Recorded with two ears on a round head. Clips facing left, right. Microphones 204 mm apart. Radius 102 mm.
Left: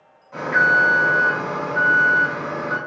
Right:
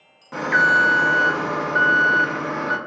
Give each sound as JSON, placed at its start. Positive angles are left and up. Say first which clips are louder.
{"t": 0.3, "sound": "an alarm", "louder": "even", "side_deg": -75, "distance_m": 0.9}